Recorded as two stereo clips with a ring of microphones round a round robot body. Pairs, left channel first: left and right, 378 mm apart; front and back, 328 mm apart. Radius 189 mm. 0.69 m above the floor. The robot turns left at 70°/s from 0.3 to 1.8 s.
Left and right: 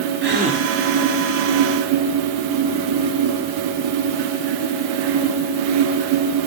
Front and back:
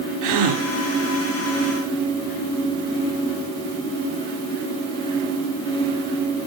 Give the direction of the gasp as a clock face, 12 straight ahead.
5 o'clock.